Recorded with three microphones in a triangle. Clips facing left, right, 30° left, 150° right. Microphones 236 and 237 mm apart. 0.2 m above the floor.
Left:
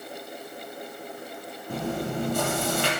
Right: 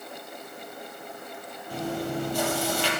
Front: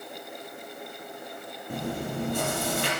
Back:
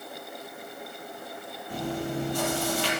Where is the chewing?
60° left, 4.5 m.